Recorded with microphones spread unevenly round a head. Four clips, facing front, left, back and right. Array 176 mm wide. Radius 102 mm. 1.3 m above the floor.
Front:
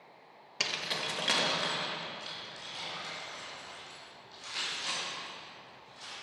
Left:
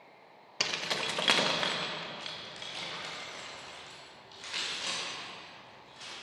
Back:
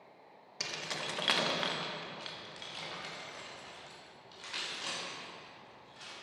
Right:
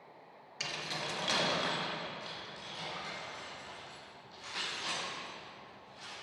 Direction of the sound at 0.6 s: 60° left.